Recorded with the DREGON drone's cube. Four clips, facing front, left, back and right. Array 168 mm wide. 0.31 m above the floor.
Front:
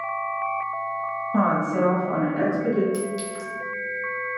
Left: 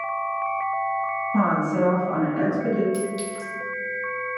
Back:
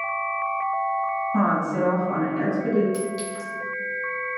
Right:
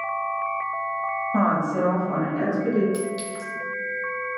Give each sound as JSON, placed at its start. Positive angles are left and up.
{"t": 1.3, "sound": "a woman speaking", "azimuth_deg": -50, "distance_m": 1.0}
{"t": 2.9, "sound": "a clink", "azimuth_deg": -70, "distance_m": 0.7}